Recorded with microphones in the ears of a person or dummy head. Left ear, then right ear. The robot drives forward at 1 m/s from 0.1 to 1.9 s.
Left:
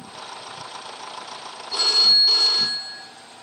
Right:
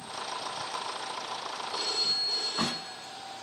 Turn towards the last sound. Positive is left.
turn(degrees=60)  # may be behind; listen again after turning